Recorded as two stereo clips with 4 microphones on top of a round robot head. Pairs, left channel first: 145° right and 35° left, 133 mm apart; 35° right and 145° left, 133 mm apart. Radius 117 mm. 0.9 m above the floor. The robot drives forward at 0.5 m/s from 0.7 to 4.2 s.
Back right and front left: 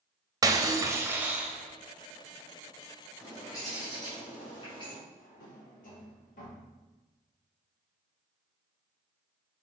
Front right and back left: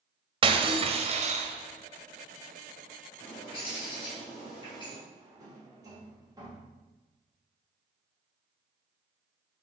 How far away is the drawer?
About 1.7 m.